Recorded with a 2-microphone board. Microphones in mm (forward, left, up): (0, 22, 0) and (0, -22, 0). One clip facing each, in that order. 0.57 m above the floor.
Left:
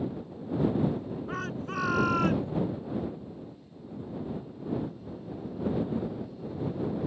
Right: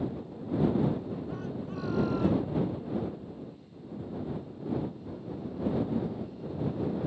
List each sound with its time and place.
1.3 s a shout: 80° left; by 2.5 s 75° left (ahead or behind)